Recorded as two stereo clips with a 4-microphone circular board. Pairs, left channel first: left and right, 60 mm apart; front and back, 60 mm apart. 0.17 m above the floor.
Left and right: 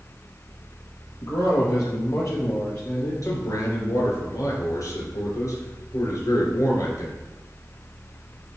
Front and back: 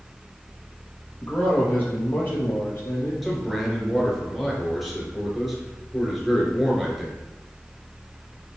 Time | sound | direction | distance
1.2 | a man speaking | 60° left | 4 m
3.2 | a man speaking | 90° left | 3 m